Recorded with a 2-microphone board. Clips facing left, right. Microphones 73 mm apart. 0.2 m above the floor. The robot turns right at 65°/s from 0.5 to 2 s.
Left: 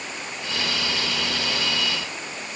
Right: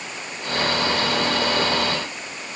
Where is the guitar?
No guitar in this recording.